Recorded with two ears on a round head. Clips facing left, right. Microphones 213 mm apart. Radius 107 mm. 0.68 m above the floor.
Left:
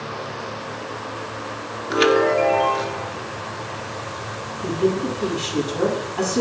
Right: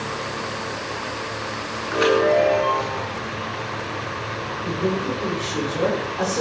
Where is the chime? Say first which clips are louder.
Left 1 dB; 45° left (ahead or behind), 1.5 m.